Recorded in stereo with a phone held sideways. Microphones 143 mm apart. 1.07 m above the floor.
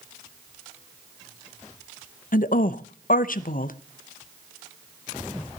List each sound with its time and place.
2.3 s a woman speaking: 75° left (ahead or behind), 0.6 m